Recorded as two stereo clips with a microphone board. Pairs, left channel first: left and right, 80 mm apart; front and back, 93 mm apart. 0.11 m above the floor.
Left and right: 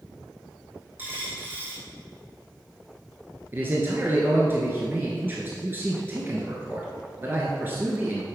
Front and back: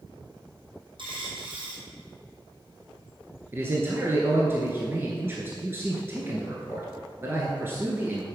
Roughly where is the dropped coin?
Behind right.